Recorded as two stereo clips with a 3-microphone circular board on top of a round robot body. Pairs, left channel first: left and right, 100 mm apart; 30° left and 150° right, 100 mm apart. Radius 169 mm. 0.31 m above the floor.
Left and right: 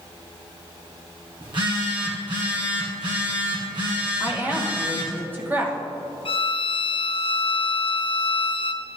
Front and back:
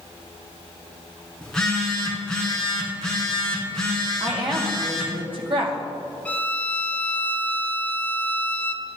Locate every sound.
1.4 s a phone buzzing: 50° right, 2 m
4.2 s a woman speaking: 155° right, 2 m
6.2 s a violin: 105° left, 0.8 m